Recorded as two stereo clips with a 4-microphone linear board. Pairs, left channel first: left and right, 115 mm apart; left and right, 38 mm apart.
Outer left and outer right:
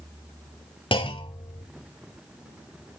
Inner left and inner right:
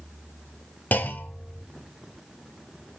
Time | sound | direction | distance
0.9 | a clunk | 50° left (ahead or behind) | 1.9 m